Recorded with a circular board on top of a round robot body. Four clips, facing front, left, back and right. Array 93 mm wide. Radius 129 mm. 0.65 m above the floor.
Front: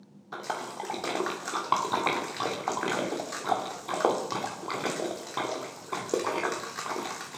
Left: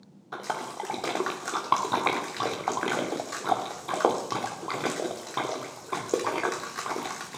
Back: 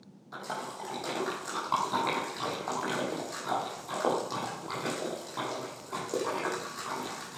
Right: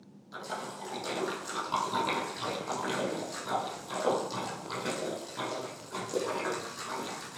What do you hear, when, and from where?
0.3 s a splash: 60° left, 2 m